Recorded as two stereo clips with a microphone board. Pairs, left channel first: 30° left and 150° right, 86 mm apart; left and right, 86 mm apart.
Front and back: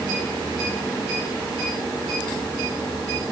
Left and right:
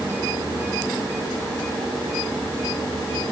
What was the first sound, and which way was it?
Only background noise.